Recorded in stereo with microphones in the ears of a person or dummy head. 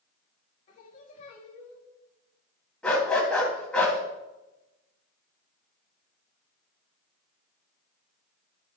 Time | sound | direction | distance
0.7 | singing | 45° left (ahead or behind) | 1.8 m
2.8 | a dog barking | 10° left (ahead or behind) | 2.5 m